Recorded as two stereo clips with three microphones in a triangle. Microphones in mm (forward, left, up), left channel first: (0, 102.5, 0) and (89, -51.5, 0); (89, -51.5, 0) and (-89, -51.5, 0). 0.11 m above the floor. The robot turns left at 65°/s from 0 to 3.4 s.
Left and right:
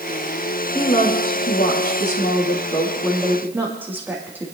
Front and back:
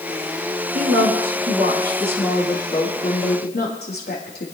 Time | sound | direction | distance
0.8 | a woman speaking | 170° right | 4.5 m